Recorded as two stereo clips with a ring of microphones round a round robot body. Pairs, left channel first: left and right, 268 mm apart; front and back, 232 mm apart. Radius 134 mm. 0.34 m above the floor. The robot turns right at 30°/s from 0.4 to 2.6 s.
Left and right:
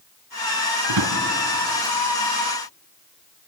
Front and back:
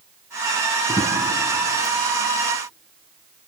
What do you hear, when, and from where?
0.9 s a drawer: 80° right, 2 m; by 1.2 s 70° right, 2 m